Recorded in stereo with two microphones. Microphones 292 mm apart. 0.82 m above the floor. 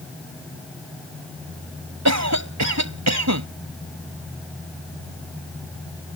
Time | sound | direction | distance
2.0 | a cough | 70° right (ahead or behind) | ?